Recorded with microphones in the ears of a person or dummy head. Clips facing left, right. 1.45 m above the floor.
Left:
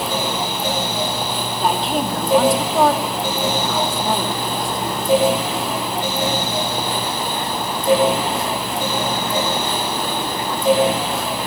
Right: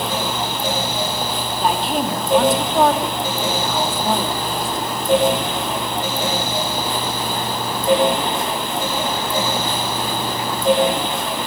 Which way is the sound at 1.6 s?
5° right (ahead or behind).